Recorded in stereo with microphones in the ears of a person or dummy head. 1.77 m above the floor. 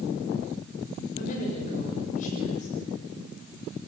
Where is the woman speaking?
45° left (ahead or behind), 7 m.